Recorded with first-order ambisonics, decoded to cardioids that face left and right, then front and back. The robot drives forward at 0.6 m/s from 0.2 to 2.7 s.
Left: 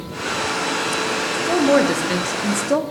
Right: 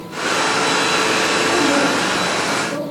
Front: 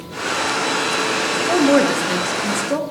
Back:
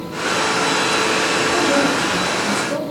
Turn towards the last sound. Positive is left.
turn(degrees=75)